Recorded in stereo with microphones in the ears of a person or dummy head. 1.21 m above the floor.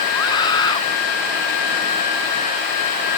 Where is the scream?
25° left (ahead or behind).